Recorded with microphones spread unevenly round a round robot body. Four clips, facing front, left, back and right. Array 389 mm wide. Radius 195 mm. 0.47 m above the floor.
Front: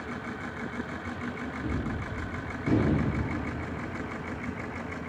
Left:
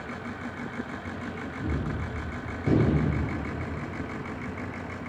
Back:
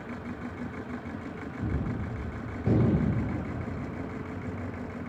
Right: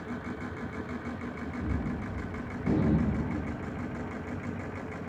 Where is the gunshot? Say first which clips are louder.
Left 2 dB, back 1 dB; 170° left, 2.5 m.